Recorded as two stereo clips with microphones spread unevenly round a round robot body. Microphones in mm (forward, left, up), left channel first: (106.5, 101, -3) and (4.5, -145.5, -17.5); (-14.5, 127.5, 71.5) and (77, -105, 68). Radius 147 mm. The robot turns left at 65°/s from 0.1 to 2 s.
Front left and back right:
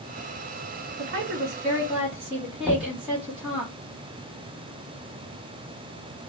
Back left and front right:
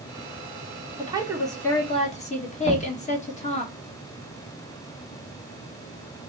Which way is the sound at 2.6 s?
160° left.